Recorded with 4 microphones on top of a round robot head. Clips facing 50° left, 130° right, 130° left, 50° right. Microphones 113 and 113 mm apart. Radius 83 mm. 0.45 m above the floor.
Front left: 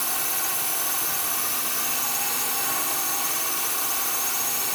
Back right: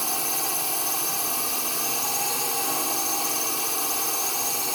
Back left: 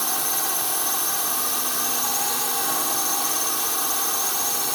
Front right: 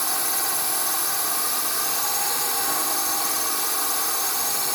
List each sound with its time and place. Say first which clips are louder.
0.0 s a drone: back right 2 dB, back left 1 dB; 150° right